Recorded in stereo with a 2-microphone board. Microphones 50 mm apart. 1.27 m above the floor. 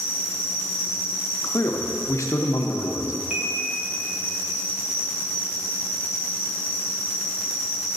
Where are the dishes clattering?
20° right (ahead or behind), 1.0 m.